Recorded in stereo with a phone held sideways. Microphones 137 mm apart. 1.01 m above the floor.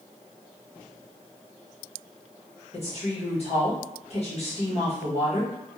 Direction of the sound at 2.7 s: 45° left (ahead or behind).